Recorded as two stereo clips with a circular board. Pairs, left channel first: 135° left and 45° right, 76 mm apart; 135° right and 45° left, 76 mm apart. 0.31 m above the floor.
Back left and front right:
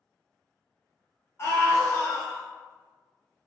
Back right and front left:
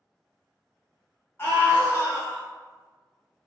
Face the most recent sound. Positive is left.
turn(degrees=-160)